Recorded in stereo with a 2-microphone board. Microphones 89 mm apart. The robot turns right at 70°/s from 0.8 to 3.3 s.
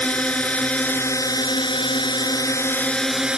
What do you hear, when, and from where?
0.0 s a drone: 15° left; by 3.4 s 170° right